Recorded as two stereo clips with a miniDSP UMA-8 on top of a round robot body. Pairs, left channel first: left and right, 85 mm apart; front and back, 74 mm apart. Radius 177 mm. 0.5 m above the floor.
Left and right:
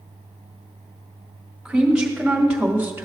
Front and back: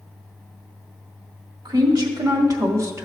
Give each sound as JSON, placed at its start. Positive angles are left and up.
{"t": 1.6, "sound": "a woman speaking", "azimuth_deg": -170, "distance_m": 2.5}